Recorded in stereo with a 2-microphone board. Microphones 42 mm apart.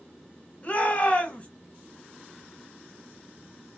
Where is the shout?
35° left (ahead or behind), 1.2 m.